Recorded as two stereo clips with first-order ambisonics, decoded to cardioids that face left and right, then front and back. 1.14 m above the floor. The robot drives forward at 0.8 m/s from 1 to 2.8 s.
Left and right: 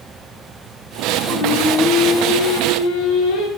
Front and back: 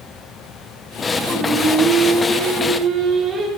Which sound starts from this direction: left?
Singing, at 1.3 s.